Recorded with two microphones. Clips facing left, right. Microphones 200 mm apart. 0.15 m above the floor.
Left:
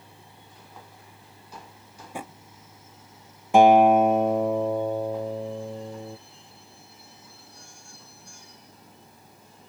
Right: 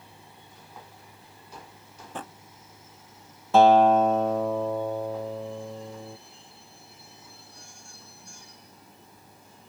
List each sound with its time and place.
2.0 s a drawer: 10° left (ahead or behind)
3.5 s a guitar: 15° left (ahead or behind)